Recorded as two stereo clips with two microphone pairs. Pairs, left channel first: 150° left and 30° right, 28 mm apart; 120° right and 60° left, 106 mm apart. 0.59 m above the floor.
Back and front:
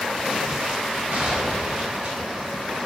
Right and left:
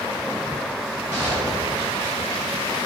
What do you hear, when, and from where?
1.1 s a gunshot: straight ahead, 3 m